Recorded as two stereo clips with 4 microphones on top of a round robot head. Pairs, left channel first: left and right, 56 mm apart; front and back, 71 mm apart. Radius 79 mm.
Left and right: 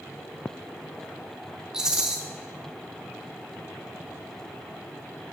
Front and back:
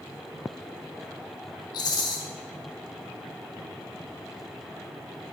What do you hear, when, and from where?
1.7 s a rattle: 15° right, 0.7 m